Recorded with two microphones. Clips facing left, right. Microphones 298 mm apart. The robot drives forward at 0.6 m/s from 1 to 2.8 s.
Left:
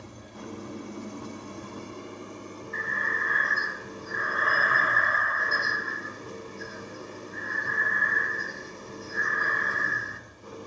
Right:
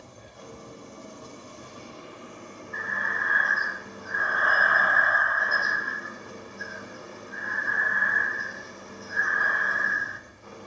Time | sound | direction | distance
0.0 | an engine running | 75° left (ahead or behind) | 1.1 m
2.7 | breathing | 30° left (ahead or behind) | 0.6 m